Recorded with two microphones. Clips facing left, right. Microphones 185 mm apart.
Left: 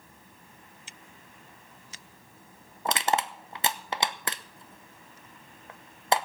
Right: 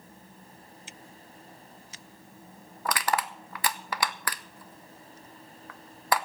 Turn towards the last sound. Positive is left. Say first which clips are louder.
# left 2 dB
turn(degrees=25)  # may be behind; listen again after turning